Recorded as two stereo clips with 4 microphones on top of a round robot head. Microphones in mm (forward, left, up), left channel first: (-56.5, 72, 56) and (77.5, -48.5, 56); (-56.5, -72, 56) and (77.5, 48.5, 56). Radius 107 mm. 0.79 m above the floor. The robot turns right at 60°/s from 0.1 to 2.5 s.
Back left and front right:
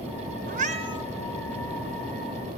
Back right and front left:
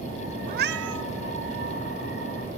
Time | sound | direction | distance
0.5 | a cat meowing | straight ahead | 1.3 m